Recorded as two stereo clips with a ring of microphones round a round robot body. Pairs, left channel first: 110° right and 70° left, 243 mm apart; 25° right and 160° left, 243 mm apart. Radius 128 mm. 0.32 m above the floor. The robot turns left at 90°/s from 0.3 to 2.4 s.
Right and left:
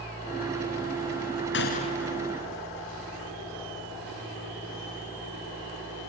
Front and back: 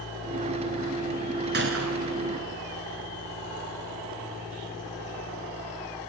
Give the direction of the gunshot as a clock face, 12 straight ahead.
5 o'clock.